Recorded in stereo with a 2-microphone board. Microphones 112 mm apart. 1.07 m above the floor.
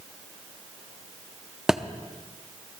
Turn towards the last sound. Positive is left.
turn(degrees=-5)  # may be behind; listen again after turning